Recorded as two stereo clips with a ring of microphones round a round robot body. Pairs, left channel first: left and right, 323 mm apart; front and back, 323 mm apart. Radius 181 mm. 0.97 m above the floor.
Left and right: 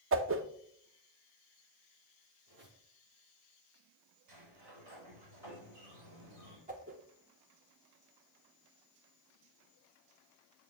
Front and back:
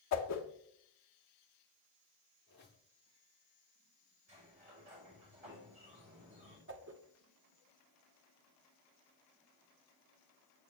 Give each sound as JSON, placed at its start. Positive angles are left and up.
{"t": 0.1, "sound": "a whoosh", "azimuth_deg": -40, "distance_m": 0.9}
{"t": 2.5, "sound": "a squeak", "azimuth_deg": -60, "distance_m": 5.0}
{"t": 4.3, "sound": "a sliding door", "azimuth_deg": -110, "distance_m": 5.0}
{"t": 6.7, "sound": "a whoosh", "azimuth_deg": -145, "distance_m": 1.0}